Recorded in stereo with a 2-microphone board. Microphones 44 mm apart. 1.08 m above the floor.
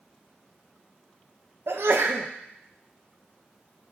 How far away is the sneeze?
About 0.5 m.